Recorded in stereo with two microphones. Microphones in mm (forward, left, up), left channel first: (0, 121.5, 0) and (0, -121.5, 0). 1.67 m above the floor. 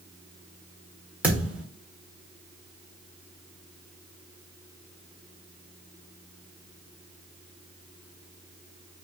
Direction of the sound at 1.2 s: 5° right (ahead or behind).